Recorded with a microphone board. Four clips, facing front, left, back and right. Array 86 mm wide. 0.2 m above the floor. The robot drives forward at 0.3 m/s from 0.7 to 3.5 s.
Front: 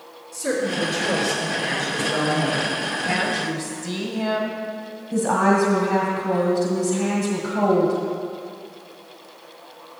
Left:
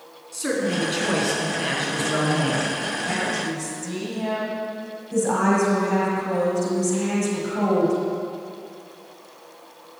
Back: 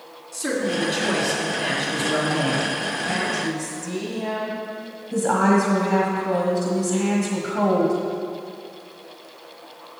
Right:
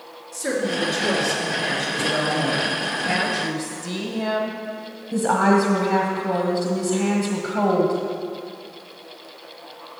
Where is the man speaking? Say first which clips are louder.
Even, even; 120° left, 2.5 m; by 2.7 s 130° left, 2.5 m.